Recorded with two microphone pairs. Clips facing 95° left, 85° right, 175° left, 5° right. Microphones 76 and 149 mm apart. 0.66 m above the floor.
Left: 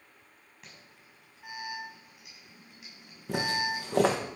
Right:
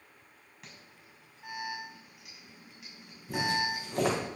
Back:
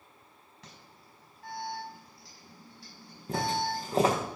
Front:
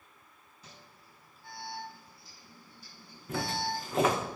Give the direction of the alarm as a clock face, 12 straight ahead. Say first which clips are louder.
Right 1 dB, back 1 dB; 6 o'clock.